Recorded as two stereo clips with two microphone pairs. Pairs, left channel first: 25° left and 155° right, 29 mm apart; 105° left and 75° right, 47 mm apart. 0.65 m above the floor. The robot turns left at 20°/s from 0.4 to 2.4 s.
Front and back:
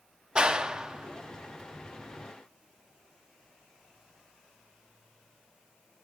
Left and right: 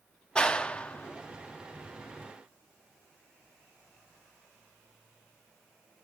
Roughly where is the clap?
Behind.